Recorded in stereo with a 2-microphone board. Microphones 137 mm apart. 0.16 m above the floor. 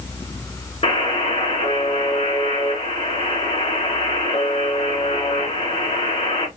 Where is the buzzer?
50° left (ahead or behind), 2 m.